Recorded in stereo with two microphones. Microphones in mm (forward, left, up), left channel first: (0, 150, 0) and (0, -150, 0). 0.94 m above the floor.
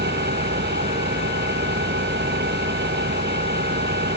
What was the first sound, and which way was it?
An engine running, 35° right (ahead or behind).